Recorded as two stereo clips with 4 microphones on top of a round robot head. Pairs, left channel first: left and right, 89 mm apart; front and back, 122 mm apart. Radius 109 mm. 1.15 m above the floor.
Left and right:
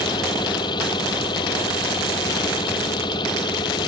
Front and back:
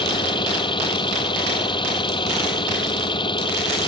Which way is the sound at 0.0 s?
45° left.